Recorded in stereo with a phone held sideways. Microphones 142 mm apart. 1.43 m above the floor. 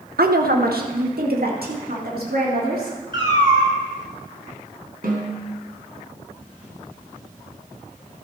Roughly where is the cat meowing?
Right.